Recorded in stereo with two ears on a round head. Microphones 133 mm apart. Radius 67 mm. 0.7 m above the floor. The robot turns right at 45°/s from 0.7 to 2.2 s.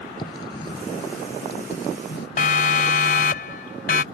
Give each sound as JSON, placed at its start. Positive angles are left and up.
{"t": 0.2, "sound": "writing", "side_deg": 30}
{"t": 2.4, "sound": "a siren", "side_deg": 55}